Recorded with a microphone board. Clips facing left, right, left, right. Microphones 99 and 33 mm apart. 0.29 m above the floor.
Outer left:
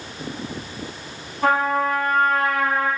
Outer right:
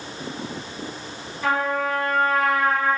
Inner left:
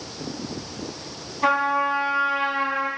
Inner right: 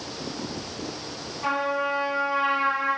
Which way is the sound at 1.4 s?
55° left (ahead or behind).